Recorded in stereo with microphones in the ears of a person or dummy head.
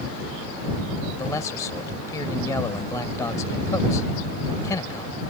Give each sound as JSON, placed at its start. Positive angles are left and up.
{"t": 1.2, "sound": "a man speaking", "side_deg": 10}